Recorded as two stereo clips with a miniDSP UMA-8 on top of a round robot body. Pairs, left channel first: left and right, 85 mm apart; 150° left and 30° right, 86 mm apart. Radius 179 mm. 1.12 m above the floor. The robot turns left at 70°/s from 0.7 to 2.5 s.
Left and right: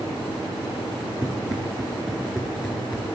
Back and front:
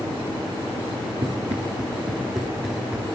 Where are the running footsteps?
25° right, 1.4 m; by 3.1 s 35° left, 1.5 m.